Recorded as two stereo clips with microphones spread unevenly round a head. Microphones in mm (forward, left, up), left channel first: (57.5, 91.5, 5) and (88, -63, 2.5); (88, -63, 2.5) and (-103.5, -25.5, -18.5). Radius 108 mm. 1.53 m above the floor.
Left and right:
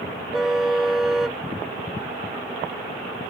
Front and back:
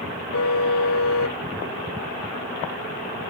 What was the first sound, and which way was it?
A car horn, 10° left.